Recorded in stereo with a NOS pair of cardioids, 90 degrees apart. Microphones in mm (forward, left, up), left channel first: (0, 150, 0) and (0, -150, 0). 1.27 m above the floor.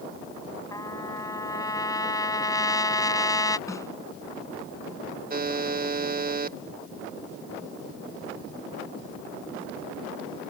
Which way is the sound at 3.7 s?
10° left.